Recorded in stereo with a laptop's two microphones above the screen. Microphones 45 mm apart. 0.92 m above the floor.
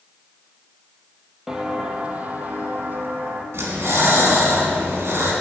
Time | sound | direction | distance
1.5 | footsteps | 10° right (ahead or behind) | 1.2 m
3.5 | breathing | 65° right (ahead or behind) | 2.5 m